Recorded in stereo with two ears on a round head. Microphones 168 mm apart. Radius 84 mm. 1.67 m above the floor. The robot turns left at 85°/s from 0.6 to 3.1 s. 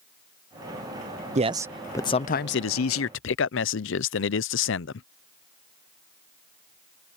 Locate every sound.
1.4 s a man speaking: 145° right; by 5.1 s 70° left